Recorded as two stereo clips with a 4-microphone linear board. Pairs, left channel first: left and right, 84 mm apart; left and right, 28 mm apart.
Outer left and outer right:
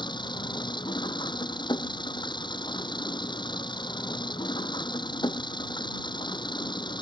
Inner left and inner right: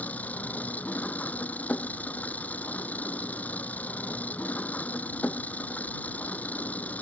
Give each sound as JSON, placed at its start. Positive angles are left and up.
{"t": 0.0, "sound": "an engine running", "side_deg": 65}